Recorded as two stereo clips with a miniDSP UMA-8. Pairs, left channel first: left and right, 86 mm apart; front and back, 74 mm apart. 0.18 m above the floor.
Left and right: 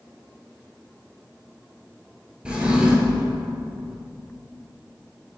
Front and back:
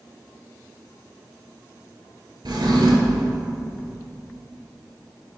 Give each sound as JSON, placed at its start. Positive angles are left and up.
{"t": 2.5, "sound": "a drawer", "azimuth_deg": -170, "distance_m": 0.7}